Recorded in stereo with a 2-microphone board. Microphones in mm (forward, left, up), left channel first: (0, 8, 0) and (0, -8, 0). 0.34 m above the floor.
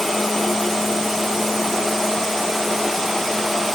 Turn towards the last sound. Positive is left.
No sound to turn to.